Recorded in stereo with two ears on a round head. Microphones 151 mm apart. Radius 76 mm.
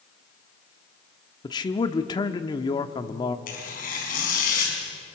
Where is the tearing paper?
55° left (ahead or behind), 5.5 m.